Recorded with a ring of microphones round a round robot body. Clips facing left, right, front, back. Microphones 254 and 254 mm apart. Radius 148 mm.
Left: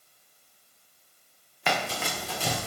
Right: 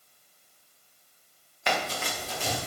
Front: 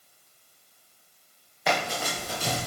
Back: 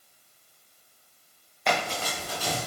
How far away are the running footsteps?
About 2.0 m.